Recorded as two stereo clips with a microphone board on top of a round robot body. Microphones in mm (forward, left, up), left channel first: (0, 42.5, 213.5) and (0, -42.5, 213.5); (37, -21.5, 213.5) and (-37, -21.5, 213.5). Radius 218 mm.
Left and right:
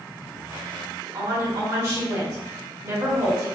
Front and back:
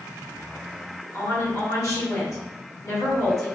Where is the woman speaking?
40° right, 1.5 m.